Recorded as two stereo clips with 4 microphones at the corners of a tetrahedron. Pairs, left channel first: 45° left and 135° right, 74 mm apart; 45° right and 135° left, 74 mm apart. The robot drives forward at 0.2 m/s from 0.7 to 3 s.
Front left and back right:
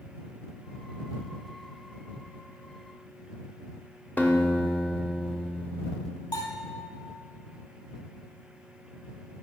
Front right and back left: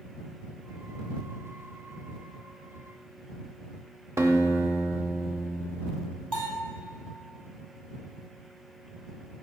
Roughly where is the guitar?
Left.